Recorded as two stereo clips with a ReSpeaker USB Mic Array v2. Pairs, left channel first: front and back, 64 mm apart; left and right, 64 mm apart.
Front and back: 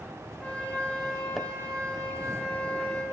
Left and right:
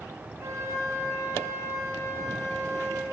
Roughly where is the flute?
Right.